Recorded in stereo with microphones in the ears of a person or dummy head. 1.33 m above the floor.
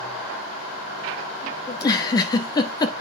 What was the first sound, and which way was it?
A giggle, 20° left (ahead or behind).